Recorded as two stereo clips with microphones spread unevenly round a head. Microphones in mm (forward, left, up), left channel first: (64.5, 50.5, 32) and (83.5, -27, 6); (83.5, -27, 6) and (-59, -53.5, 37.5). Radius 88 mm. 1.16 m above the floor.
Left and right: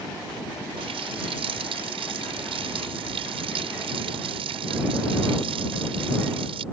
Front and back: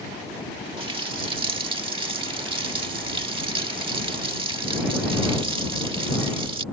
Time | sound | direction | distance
0.8 | a running tap | 115° right | ?